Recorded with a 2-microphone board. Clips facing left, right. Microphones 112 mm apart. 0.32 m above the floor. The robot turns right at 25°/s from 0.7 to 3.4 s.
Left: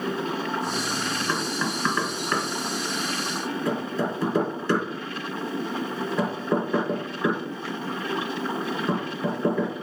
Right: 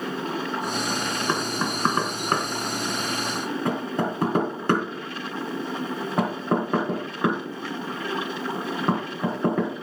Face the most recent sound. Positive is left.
turn(degrees=-60)  # may be behind; listen again after turning